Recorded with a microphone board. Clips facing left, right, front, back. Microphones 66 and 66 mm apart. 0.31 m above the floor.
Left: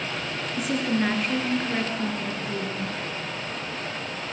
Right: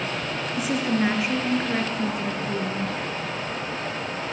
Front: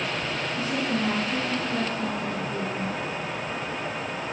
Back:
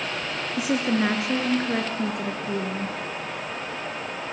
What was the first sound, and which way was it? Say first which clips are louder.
A woman speaking: right 1 dB, back 5 dB; 175° right.